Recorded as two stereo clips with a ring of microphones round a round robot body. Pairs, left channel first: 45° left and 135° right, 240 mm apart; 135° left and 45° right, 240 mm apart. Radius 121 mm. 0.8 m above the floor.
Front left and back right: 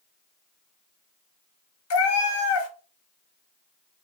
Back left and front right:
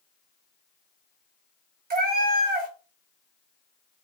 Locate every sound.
1.9 s a cat meowing: 10° left, 0.5 m